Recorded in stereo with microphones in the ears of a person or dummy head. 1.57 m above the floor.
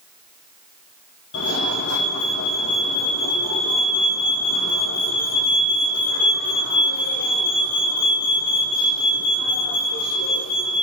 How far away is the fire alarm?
About 4 m.